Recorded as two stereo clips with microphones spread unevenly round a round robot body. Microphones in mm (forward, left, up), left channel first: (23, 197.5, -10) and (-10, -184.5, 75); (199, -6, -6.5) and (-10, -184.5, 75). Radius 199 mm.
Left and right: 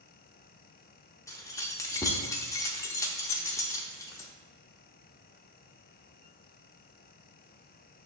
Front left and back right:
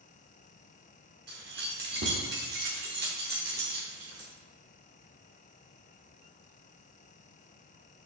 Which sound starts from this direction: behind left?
Keys jangling, at 1.3 s.